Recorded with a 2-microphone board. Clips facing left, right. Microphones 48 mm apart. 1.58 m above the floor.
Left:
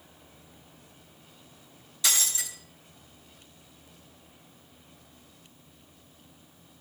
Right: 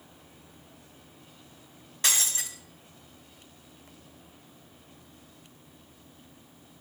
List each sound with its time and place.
2.0 s breaking glass: 50° right (ahead or behind), 5 m